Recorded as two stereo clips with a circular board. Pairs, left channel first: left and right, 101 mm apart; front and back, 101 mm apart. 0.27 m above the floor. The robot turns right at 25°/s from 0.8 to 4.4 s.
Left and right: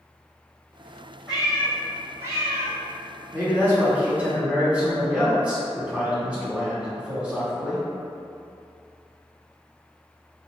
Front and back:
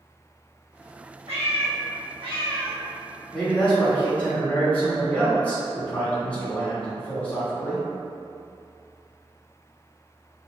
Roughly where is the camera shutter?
No camera shutter in this recording.